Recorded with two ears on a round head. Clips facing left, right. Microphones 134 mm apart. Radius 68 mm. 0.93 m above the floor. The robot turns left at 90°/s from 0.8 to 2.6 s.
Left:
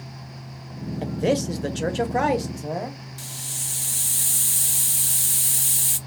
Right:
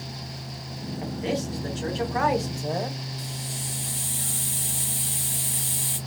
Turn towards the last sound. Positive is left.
turn(degrees=50)  # may be behind; listen again after turning